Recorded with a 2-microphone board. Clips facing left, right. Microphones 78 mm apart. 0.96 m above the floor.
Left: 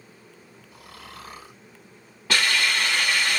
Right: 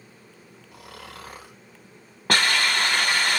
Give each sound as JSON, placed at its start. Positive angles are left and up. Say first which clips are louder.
{"t": 0.7, "sound": "snoring", "louder": "right 2 dB", "side_deg": -70, "distance_m": 1.3}
{"t": 2.3, "sound": "a hiss", "louder": "right 1 dB", "side_deg": -50, "distance_m": 1.0}